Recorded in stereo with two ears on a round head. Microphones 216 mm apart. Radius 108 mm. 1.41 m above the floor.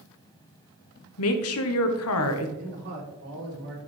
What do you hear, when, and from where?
1.2 s a woman speaking: 65° left (ahead or behind), 1.1 m
2.6 s a man speaking: 45° right (ahead or behind), 4 m